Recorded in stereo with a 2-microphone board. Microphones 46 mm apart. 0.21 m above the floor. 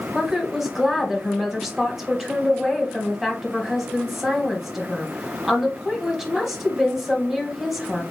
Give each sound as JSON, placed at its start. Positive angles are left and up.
{"t": 0.1, "sound": "a woman speaking", "side_deg": -5, "distance_m": 1.1}